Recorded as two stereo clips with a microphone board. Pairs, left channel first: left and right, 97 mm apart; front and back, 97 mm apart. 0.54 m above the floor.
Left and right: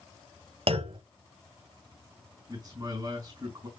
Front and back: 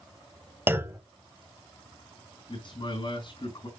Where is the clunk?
110° right, 0.9 m.